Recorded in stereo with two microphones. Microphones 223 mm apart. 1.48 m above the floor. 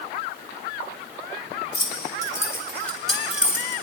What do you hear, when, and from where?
1.7 s keys jangling: 25° left (ahead or behind), 3 m; by 3.8 s 10° right (ahead or behind), 3 m